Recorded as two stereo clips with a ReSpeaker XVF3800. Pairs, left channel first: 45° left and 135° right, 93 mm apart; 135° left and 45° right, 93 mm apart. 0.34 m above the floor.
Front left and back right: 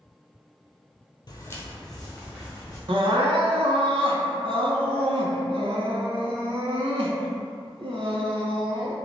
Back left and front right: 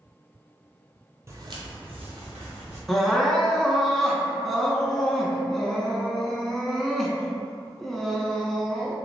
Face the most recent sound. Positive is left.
turn(degrees=-135)